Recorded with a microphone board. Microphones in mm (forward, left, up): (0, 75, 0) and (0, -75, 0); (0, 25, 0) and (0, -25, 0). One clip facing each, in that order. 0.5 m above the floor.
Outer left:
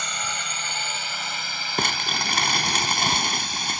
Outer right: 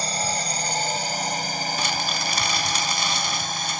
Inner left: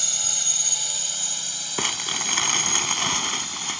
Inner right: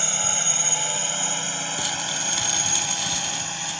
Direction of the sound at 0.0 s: 35° right (ahead or behind).